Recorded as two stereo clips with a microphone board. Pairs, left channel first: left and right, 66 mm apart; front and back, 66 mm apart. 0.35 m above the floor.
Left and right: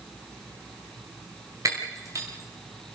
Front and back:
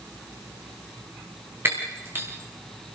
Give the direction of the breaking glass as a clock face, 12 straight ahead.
4 o'clock.